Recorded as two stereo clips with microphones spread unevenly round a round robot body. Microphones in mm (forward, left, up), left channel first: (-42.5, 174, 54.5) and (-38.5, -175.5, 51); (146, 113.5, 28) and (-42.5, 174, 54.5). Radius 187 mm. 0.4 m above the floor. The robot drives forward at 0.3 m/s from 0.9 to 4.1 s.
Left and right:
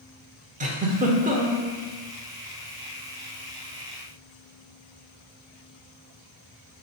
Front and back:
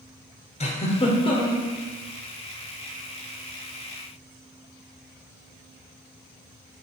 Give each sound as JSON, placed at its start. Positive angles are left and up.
{"t": 0.6, "sound": "a giggle", "azimuth_deg": -30, "distance_m": 1.0}